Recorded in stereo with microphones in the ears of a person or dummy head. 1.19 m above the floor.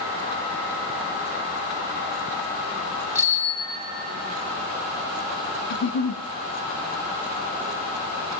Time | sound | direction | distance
3.1 | a bicycle bell | 5° right (ahead or behind) | 2 m
5.7 | a giggle | 75° left (ahead or behind) | 1.0 m